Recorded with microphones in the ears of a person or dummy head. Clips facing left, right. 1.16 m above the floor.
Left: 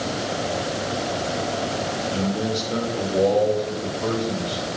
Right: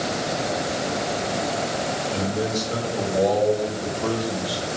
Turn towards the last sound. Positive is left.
turn(degrees=-20)  # may be behind; listen again after turning